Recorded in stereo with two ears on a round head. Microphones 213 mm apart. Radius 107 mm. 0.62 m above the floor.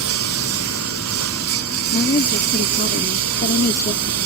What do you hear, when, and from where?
0.0 s a lawn mower: 70° right (ahead or behind); by 4.3 s 75° right (ahead or behind)
1.9 s a woman speaking: 35° left (ahead or behind)